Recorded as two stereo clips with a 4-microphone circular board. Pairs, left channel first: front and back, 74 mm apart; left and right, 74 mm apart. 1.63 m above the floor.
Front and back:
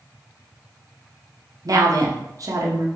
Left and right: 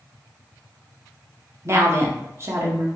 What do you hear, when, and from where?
1.6 s a woman speaking: 140° right, 0.5 m